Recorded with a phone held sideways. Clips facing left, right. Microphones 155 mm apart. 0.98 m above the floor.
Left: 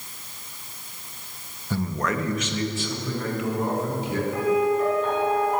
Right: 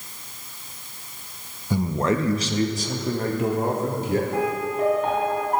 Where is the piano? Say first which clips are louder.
Left 3 dB; 55° right (ahead or behind), 3 m.